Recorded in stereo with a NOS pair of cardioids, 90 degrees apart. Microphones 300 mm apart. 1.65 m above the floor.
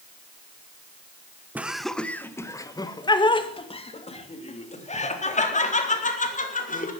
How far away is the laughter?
About 1.3 m.